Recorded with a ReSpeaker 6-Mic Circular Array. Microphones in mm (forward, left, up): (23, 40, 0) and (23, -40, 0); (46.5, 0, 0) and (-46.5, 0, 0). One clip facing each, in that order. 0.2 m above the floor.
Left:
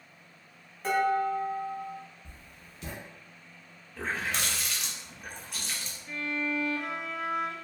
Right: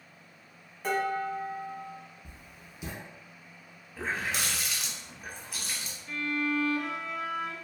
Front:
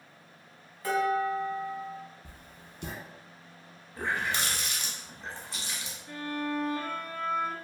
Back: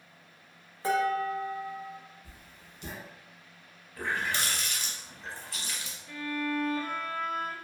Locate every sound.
0.8 s dishes clattering: straight behind, 1.0 m
2.2 s writing: 15° right, 0.7 m
4.0 s a running tap: 15° right, 0.7 m
6.1 s a violin: 25° left, 0.8 m